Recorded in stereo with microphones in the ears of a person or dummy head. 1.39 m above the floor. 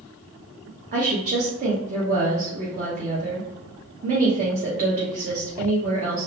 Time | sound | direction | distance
0.9 | a woman speaking | 40° right (ahead or behind) | 1.0 m